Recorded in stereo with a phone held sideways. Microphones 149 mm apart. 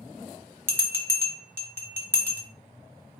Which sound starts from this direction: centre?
A bell, at 0.7 s.